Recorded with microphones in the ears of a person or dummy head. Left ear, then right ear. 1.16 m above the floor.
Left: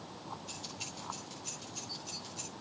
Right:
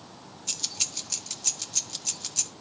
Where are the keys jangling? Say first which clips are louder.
Right 17 dB; 60° right (ahead or behind), 1.3 m.